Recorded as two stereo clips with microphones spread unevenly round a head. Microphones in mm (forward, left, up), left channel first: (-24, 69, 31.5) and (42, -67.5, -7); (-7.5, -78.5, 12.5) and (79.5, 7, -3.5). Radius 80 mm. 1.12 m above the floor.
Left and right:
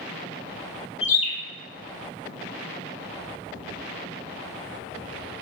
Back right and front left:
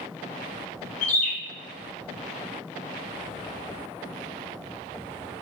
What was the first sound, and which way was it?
A bird, 170° left.